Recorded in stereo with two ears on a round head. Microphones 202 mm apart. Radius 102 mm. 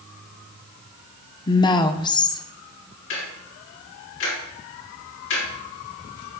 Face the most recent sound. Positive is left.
turn(degrees=55)  # may be behind; listen again after turning